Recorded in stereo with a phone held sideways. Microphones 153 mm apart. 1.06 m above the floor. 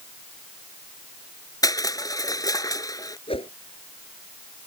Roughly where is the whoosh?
Left.